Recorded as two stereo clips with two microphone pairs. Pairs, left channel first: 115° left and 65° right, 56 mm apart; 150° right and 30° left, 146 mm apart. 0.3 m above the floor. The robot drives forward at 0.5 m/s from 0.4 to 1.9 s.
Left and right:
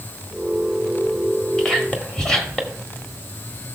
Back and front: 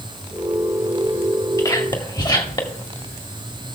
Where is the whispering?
170° right, 1.5 m; by 2.8 s 175° right, 1.6 m.